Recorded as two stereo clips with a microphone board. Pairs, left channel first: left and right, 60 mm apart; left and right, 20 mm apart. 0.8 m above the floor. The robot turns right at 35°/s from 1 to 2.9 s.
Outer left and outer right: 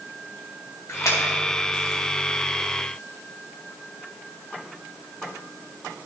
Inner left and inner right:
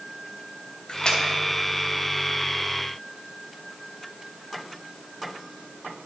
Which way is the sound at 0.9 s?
50° left (ahead or behind).